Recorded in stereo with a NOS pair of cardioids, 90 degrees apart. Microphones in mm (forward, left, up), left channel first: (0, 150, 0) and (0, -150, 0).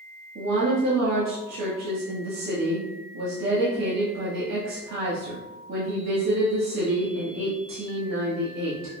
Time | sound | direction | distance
0.3 | a woman speaking | 60° right | 1.7 m